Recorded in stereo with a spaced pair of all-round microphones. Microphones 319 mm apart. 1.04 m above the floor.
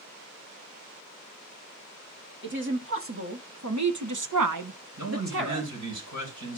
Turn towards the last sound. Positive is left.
turn(degrees=-70)  # may be behind; listen again after turning